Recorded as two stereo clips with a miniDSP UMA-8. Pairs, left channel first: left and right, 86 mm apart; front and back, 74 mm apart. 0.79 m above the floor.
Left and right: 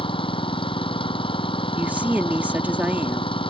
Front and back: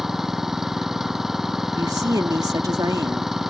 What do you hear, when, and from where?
0.0 s an engine running: 95° left
1.8 s a woman speaking: 155° right